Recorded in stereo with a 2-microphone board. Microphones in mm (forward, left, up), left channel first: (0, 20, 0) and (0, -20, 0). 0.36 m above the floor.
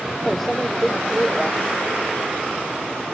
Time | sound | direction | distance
0.3 | a microwave | 10° left (ahead or behind) | ?